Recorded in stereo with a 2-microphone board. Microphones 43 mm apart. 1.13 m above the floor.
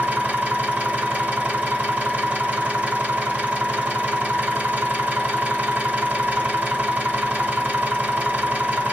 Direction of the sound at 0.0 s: 30° right (ahead or behind).